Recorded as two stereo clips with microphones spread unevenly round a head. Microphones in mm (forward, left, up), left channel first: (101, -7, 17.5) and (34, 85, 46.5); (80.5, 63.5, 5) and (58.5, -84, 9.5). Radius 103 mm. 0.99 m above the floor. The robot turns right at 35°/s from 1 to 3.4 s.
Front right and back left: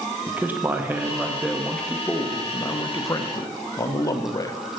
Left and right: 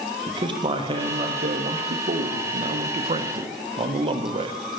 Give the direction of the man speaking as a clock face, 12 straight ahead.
5 o'clock.